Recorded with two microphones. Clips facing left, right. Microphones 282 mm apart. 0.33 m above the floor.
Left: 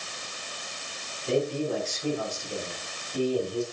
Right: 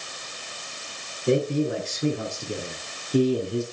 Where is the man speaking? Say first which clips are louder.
Right 4 dB; 65° right (ahead or behind), 5.5 m; by 3.6 s 75° right (ahead or behind), 4.5 m.